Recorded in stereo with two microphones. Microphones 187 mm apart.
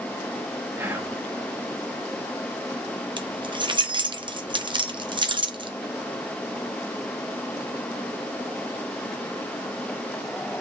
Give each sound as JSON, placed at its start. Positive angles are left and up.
{"t": 0.8, "sound": "whispering", "side_deg": -15, "distance_m": 0.5}
{"t": 3.2, "sound": "keys jangling", "side_deg": -25, "distance_m": 0.5}